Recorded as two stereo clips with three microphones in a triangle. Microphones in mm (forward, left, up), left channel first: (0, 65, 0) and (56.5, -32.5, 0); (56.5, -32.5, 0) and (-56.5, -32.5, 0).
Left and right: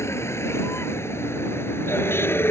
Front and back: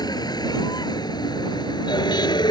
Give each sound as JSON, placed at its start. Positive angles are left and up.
{"t": 0.0, "sound": "a vehicle", "azimuth_deg": 55}